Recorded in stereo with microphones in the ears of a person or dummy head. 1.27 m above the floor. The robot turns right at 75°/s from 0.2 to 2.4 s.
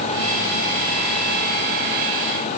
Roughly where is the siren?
No siren in this recording.